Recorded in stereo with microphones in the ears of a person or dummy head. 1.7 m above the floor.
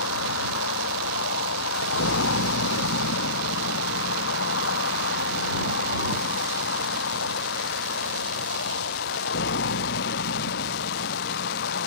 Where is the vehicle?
70° left (ahead or behind); by 11.9 s 55° left (ahead or behind).